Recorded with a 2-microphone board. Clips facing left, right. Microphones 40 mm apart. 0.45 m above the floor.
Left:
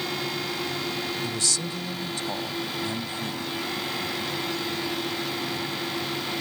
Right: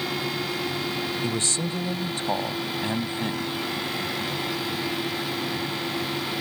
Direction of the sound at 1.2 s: 40° right (ahead or behind).